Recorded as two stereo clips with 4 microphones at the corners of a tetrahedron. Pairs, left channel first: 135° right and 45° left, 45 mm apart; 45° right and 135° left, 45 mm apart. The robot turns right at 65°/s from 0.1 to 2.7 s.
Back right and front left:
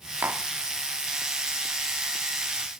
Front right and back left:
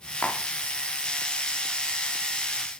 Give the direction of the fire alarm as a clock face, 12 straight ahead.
No fire alarm in this recording.